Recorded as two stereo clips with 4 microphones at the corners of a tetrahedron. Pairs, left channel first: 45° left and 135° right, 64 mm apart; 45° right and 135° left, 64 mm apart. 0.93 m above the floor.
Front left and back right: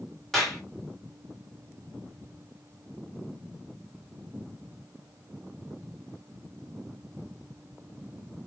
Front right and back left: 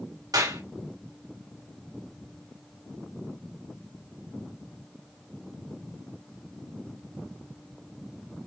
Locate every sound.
0.3 s a clap: 130° left, 3 m